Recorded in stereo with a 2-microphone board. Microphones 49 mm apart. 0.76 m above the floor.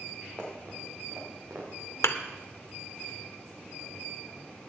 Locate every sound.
0.4 s running footsteps: 40° right (ahead or behind), 4.5 m; by 1.9 s 65° right (ahead or behind), 4 m
2.0 s a thud: 70° left (ahead or behind), 0.8 m